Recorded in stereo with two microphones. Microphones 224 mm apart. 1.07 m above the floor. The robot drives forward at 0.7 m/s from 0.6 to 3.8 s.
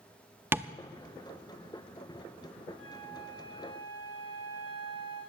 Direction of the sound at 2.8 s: 80° left.